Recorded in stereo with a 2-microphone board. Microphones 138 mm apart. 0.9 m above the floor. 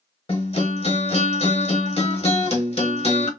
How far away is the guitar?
About 1.2 m.